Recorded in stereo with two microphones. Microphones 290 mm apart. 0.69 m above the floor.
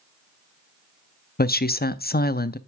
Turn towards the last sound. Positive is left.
turn(degrees=35)  # may be behind; listen again after turning